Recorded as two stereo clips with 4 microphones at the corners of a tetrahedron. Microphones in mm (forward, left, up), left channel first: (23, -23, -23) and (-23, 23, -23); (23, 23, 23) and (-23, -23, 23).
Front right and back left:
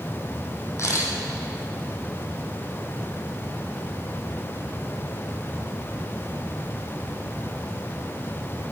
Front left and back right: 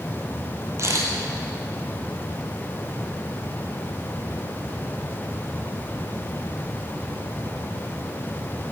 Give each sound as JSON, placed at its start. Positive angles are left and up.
{"t": 0.8, "sound": "a camera shutter", "azimuth_deg": -90, "distance_m": 1.8}